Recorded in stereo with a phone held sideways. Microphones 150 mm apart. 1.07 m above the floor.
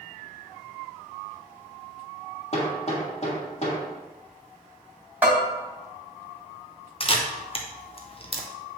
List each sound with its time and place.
2.5 s hammering: 45° left (ahead or behind), 1.8 m
5.2 s a bell: 10° right (ahead or behind), 2.5 m
7.0 s a camera shutter: 40° left (ahead or behind), 0.8 m